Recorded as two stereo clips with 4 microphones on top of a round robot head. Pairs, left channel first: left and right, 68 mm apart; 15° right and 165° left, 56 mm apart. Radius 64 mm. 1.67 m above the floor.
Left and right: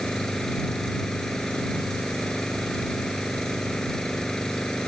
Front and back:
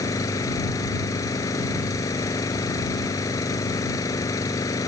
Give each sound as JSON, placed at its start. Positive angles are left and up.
{"t": 0.0, "sound": "an engine running", "azimuth_deg": 5}